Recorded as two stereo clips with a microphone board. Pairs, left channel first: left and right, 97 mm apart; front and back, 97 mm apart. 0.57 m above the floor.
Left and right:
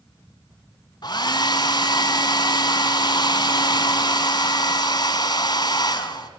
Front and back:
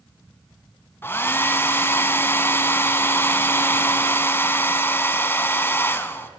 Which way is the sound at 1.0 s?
60° left.